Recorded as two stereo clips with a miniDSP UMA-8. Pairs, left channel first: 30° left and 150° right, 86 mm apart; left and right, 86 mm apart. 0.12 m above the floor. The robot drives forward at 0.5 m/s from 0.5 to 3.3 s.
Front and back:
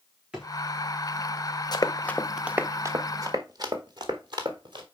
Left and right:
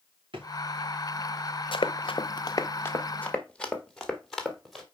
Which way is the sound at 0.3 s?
70° right.